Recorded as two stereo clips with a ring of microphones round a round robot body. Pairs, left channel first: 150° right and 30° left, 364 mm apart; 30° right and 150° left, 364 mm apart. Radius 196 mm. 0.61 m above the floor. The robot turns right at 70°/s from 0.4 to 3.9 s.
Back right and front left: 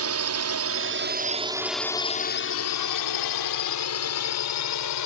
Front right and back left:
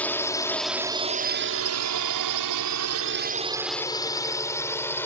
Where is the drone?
55° left; by 5.1 s 115° right.